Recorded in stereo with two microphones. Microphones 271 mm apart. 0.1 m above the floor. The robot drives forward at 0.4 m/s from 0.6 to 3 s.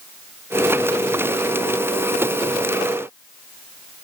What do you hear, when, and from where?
Only background noise.